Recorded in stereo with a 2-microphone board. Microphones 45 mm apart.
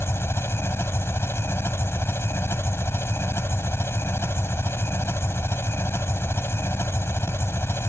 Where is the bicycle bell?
I don't hear a bicycle bell.